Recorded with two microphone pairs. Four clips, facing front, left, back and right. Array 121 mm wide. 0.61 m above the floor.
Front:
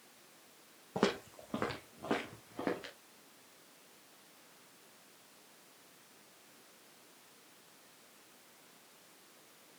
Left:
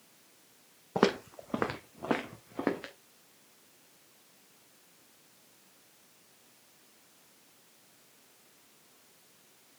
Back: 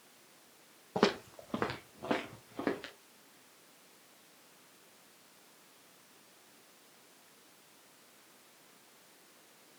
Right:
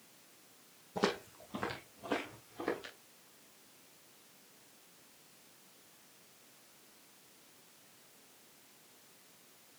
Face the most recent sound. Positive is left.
turn(degrees=105)